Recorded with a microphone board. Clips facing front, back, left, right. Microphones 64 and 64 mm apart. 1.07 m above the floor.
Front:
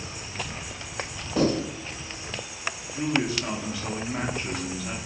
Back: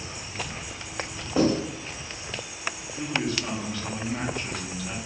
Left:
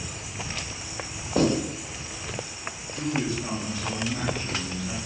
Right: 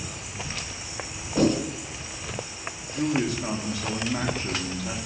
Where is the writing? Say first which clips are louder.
Back 1 dB, right 1 dB; 105° left, 1.5 m.